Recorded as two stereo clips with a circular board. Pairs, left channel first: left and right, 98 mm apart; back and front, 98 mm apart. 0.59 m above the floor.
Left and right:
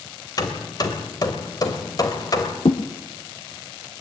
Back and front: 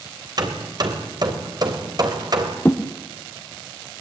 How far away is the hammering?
About 3 m.